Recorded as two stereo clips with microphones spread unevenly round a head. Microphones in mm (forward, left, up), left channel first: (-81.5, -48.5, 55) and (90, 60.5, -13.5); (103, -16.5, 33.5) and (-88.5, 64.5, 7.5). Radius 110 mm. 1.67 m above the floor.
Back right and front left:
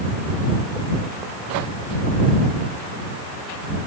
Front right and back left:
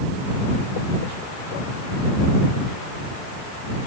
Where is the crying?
No crying in this recording.